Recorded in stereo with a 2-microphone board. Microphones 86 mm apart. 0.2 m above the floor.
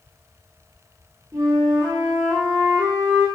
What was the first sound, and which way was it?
A flute, 35° right (ahead or behind).